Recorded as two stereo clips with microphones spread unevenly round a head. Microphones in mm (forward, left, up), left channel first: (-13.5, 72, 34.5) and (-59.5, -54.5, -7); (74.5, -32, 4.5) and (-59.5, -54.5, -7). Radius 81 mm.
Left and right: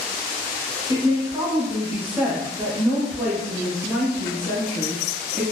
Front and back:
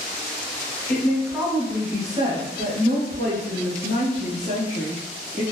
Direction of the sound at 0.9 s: 75° right.